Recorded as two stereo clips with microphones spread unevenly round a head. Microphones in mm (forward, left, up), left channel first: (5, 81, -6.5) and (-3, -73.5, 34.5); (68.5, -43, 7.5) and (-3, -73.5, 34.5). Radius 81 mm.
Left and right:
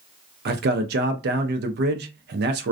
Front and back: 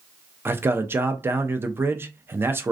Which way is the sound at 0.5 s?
85° right.